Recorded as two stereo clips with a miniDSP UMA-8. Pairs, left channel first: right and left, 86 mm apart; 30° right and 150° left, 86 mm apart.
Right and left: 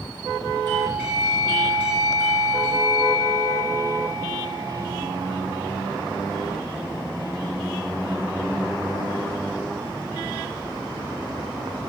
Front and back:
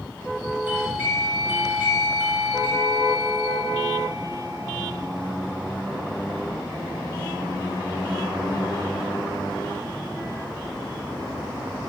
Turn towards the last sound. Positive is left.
turn(degrees=-150)